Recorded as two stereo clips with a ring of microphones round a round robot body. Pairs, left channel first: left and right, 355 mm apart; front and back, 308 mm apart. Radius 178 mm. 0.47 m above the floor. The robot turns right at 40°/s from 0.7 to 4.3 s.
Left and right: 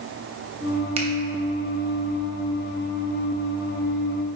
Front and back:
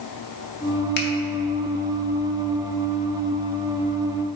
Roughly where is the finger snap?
Ahead right.